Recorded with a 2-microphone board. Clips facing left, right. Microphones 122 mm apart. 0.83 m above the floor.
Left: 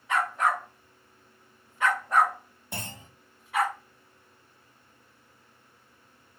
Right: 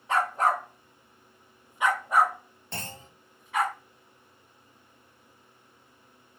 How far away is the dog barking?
About 0.8 m.